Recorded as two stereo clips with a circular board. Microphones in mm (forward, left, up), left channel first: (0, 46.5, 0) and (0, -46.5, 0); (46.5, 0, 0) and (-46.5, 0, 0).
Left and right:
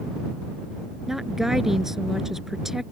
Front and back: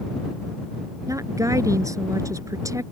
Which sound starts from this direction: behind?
A woman speaking, at 1.1 s.